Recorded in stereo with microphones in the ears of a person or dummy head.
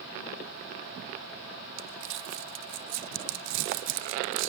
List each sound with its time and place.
1.8 s crumpling: 70° right (ahead or behind), 0.7 m